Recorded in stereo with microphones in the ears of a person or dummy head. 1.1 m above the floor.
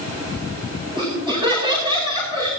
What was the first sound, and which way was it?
Laughter, 25° right (ahead or behind).